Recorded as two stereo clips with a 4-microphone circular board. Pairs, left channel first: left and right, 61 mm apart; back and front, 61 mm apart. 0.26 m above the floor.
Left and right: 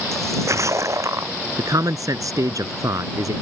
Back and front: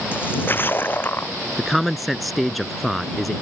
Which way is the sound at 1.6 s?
90° right.